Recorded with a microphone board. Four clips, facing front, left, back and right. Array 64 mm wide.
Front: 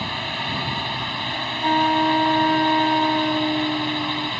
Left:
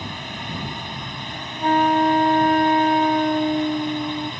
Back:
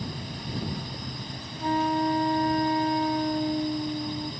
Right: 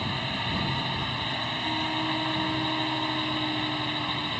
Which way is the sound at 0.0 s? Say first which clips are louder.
Right 1 dB, front 9 dB; 5° right.